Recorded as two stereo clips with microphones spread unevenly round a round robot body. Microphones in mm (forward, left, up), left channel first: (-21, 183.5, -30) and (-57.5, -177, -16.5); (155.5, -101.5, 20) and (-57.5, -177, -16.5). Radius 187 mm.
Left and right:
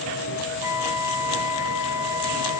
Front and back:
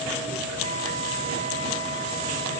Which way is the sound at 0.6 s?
125° left.